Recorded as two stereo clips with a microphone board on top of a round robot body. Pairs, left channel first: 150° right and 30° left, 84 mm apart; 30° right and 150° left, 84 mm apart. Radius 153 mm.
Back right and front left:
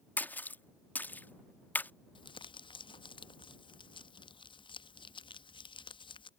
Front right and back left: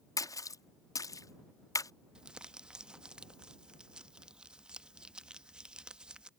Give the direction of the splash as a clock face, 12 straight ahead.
3 o'clock.